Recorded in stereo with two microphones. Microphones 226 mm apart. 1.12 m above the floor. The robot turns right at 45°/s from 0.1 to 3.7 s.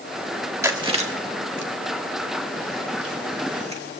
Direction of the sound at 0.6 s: 10° right (ahead or behind).